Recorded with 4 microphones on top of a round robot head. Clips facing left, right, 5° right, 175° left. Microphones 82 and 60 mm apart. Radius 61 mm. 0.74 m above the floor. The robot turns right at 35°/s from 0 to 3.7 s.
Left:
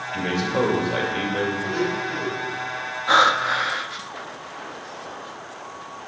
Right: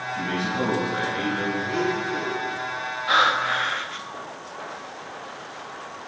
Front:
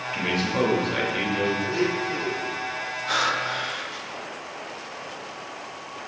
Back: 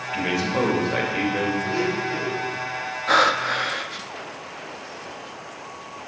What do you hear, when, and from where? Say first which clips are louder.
0.1 s a man speaking: left 4 dB, back 2 dB; 85° left, 3 m; by 1.5 s 135° left, 3 m
1.6 s a blender: even, back 1 dB; 140° left, 5.5 m; by 2.5 s 175° left, 5.5 m
3.1 s breathing: left 3 dB, back 6 dB; 145° left, 0.8 m; by 4.0 s 165° left, 0.8 m